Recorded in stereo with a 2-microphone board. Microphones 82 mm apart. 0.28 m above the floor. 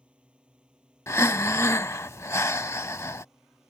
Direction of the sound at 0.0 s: 10° right (ahead or behind).